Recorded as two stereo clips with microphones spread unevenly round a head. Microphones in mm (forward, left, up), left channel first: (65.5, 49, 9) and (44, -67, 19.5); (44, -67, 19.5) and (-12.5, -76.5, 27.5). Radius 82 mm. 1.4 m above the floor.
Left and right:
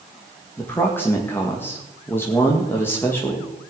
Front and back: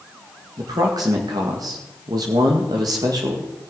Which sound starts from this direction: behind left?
A man speaking, at 0.6 s.